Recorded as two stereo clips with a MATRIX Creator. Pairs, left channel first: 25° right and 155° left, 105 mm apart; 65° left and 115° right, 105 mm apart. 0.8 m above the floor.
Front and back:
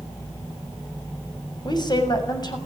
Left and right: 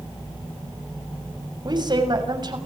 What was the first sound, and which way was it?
A woman speaking, 70° right.